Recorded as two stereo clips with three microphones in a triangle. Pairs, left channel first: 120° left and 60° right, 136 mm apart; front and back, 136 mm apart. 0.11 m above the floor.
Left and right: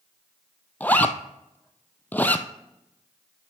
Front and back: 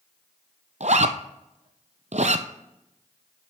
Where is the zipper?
165° right, 0.6 m.